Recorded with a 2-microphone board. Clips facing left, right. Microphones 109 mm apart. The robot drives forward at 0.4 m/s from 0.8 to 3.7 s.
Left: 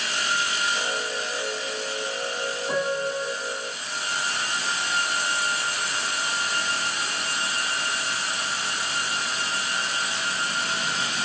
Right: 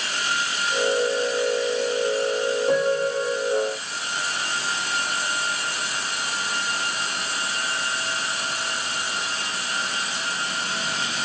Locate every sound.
2.7 s a piano: 60° right (ahead or behind), 4 m